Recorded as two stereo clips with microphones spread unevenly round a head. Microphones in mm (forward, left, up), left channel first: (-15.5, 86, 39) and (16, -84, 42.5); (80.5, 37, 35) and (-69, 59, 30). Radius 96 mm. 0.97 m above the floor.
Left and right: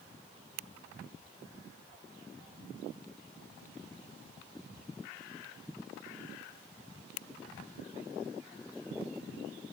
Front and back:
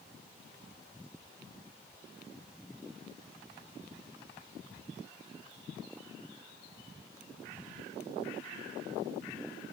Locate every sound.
Only background noise.